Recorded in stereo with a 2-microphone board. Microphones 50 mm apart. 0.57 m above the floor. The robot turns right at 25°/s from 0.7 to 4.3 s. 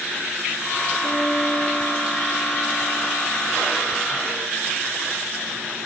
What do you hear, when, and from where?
1.0 s a guitar: 35° right, 6.5 m; by 3.3 s 20° left, 6.5 m